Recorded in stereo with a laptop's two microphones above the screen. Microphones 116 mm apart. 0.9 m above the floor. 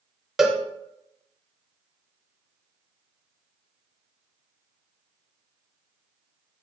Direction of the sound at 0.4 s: 5° right (ahead or behind).